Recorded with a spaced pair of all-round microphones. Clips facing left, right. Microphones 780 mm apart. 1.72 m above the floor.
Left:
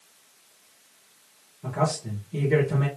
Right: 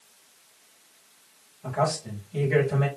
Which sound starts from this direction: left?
A man speaking, at 1.6 s.